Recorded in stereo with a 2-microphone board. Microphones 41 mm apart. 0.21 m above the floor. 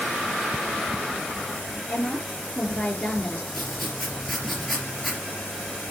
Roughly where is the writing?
Centre.